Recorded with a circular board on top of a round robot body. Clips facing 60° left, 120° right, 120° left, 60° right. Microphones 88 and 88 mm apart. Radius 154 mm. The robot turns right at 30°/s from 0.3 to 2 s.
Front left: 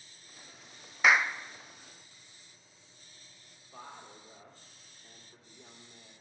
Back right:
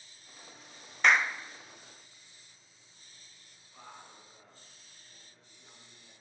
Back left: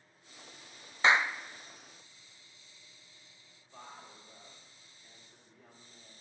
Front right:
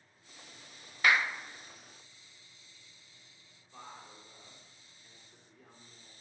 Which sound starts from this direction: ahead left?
A woman speaking, at 3.7 s.